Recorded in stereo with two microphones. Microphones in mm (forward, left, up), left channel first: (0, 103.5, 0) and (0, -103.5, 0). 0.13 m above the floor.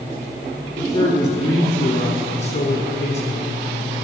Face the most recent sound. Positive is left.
turn(degrees=30)  # may be behind; listen again after turning